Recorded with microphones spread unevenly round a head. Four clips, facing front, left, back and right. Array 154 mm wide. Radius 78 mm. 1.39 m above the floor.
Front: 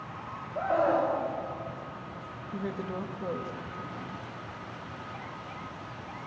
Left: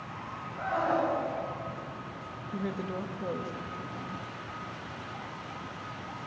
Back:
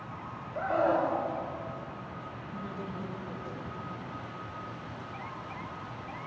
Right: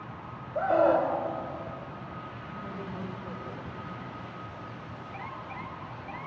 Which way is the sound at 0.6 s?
75° right.